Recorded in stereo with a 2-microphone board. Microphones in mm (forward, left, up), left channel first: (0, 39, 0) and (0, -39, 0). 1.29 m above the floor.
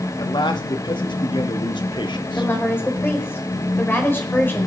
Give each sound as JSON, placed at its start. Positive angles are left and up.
{"t": 0.2, "sound": "a man speaking", "side_deg": 85, "distance_m": 2.5}
{"t": 2.4, "sound": "a woman speaking", "side_deg": 25, "distance_m": 5.0}